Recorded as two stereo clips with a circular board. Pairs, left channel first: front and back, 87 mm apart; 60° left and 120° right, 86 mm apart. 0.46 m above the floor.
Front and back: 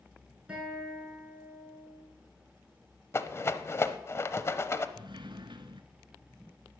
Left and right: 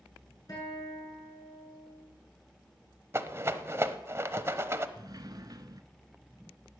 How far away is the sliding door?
About 0.9 m.